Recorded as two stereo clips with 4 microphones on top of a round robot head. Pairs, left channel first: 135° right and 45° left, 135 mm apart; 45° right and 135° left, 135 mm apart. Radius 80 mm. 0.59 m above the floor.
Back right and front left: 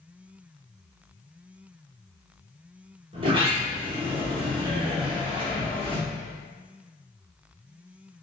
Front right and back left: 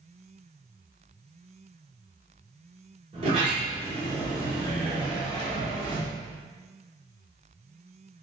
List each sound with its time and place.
3.1 s a sliding door: 90° left, 1.1 m